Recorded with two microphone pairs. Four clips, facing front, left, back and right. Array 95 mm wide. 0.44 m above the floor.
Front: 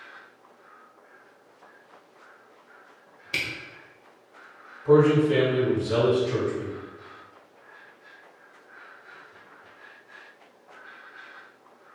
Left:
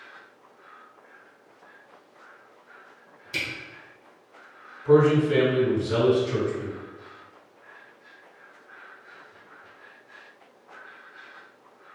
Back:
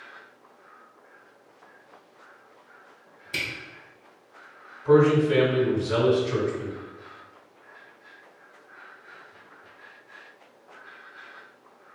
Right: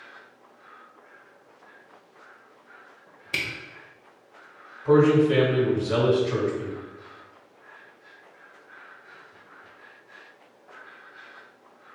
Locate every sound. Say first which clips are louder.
3.3 s a camera shutter: right 1 dB, front 1 dB; 50° right, 1.2 m
4.8 s a man speaking: right 1 dB, even; 85° right, 1.4 m